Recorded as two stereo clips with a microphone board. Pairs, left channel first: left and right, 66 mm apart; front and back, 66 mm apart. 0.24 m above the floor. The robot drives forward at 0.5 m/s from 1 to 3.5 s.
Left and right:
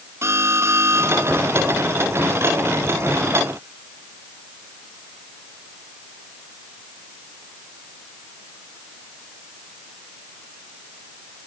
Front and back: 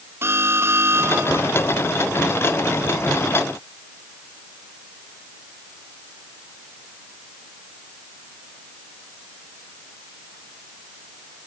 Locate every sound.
0.2 s an alarm: 135° right